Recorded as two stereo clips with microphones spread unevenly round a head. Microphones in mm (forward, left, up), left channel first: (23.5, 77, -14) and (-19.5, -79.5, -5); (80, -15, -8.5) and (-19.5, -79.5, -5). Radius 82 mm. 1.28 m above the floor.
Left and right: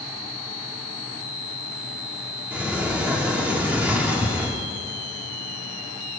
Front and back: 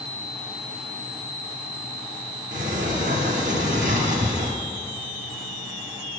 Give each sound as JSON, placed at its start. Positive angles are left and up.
{"t": 2.5, "sound": "a sliding door", "azimuth_deg": 175, "distance_m": 2.0}